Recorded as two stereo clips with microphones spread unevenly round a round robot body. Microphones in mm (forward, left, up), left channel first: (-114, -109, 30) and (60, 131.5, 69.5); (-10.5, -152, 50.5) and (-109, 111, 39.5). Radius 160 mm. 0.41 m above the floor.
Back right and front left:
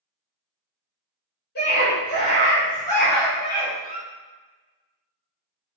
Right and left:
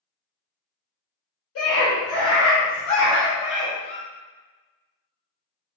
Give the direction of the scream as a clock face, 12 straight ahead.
3 o'clock.